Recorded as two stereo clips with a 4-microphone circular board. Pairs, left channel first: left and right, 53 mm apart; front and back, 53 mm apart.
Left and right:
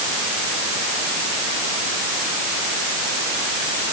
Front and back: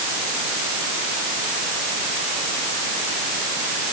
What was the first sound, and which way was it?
Only background noise.